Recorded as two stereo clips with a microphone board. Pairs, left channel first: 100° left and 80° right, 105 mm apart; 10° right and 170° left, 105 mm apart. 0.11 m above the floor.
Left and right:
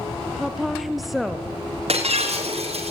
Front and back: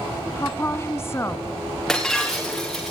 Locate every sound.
0.3 s a woman speaking: 5° left, 1.5 m
1.9 s breaking glass: 95° right, 7 m